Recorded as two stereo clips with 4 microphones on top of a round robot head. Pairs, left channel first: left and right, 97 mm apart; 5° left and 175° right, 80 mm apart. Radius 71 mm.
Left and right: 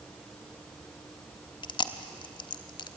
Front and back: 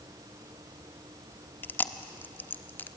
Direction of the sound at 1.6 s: 65° left.